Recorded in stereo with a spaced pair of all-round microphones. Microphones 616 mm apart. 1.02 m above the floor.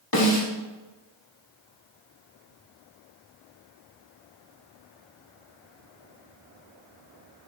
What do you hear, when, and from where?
0.1 s a snare drum: 35° left (ahead or behind), 2 m